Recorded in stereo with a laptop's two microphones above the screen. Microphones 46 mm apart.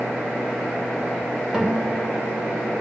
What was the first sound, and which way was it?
A guitar, 20° right (ahead or behind).